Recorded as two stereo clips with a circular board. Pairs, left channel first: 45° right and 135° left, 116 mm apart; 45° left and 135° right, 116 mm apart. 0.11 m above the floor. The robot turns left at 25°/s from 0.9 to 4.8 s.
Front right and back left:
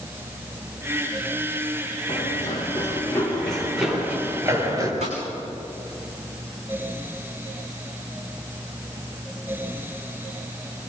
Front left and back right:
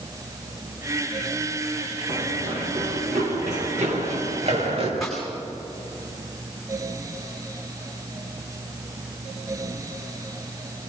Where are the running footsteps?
95° right, 4.5 m; by 4.9 s 165° right, 6.5 m.